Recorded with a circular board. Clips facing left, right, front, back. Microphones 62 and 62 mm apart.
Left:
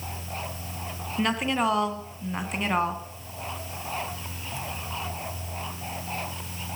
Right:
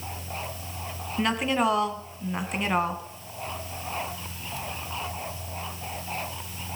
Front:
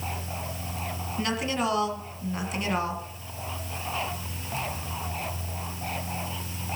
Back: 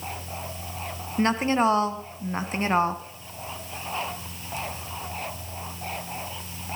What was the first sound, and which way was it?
A woman speaking, straight behind.